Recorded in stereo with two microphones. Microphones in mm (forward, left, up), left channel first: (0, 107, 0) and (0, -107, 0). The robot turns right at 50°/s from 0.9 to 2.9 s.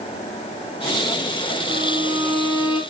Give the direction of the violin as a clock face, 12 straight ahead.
1 o'clock.